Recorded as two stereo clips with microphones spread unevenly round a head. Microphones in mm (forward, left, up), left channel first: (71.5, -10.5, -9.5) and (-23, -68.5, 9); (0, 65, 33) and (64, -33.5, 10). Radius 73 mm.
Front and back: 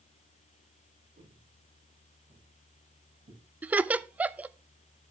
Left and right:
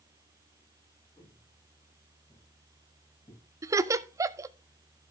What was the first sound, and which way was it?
Footsteps, straight behind.